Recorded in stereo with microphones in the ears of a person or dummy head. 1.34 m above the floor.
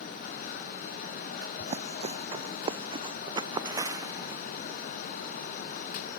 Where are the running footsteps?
35° right (ahead or behind); by 4.4 s 20° right (ahead or behind).